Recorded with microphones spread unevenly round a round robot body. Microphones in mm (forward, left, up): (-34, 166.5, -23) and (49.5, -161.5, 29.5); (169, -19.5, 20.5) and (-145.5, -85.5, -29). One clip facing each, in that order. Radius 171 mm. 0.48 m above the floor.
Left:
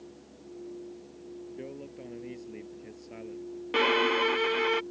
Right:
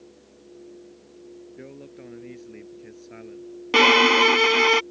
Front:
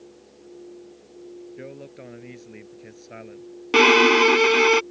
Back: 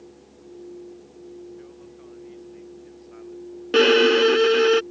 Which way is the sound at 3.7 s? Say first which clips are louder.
Right 7 dB, back 2 dB; 60° right.